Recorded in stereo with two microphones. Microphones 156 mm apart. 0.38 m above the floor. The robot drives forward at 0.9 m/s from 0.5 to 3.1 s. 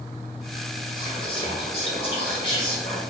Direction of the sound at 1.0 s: 30° left (ahead or behind).